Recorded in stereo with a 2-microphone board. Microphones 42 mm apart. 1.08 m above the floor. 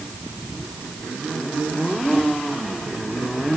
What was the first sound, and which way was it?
Only background noise.